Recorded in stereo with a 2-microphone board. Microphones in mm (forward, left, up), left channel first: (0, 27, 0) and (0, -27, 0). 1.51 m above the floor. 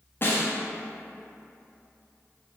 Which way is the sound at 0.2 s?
40° left (ahead or behind).